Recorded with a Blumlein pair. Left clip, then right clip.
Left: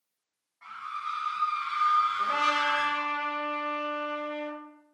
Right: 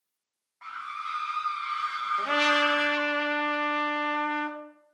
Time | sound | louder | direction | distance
0.6 | a scream | even | 15° right | 0.7 m
2.2 | a trumpet | right 2 dB | 50° right | 0.5 m